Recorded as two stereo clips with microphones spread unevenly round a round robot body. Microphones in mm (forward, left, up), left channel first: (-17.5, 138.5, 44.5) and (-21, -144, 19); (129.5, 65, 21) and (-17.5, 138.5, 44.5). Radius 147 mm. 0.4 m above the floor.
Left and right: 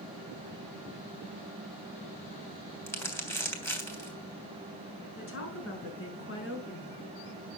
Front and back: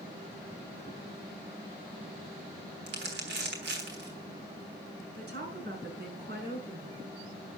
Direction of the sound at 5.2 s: 135° left.